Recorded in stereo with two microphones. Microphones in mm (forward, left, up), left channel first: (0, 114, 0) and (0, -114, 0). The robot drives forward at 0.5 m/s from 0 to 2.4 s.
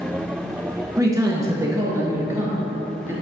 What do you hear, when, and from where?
1.0 s a man speaking: 15° right (ahead or behind), 1.3 m; by 3.1 s 10° right (ahead or behind), 1.8 m